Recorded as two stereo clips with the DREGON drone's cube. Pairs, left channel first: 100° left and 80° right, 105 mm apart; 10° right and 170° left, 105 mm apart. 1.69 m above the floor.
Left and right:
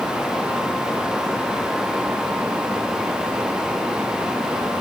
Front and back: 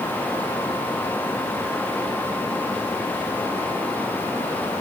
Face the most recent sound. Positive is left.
No sound to turn to.